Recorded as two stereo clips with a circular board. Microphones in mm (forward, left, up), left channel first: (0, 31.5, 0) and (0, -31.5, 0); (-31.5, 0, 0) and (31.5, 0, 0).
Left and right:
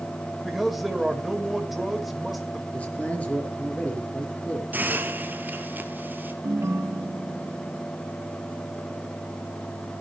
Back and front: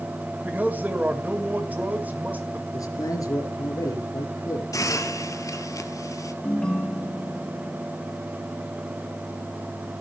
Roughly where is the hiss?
Behind right.